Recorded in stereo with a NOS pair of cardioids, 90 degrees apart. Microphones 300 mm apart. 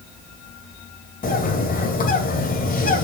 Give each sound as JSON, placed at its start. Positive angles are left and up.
{"t": 1.2, "sound": "a bird", "azimuth_deg": 30, "distance_m": 2.5}